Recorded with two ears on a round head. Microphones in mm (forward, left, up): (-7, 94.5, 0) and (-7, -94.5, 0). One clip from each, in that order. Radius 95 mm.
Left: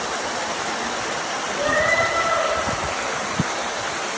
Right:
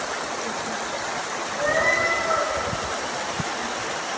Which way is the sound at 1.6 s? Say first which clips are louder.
Left 2 dB; 20° right (ahead or behind).